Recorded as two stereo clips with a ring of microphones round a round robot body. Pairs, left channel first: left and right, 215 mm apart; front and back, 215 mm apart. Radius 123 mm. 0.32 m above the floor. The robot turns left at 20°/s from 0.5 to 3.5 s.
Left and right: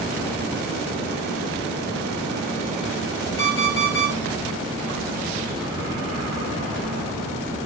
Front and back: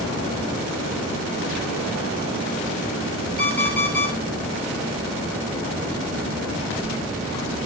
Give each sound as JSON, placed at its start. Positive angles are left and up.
{"t": 3.4, "sound": "an alarm clock", "azimuth_deg": 130, "distance_m": 4.5}